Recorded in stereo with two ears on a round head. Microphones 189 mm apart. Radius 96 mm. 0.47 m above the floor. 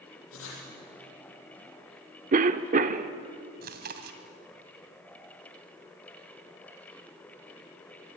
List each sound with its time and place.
0.3 s writing: 60° left (ahead or behind), 7 m
2.3 s a cough: 35° right (ahead or behind), 0.9 m
3.6 s chewing: 50° right (ahead or behind), 2 m